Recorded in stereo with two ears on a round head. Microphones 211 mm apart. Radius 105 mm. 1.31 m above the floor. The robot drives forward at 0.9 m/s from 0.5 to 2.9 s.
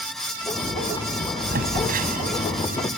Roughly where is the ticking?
No ticking in this recording.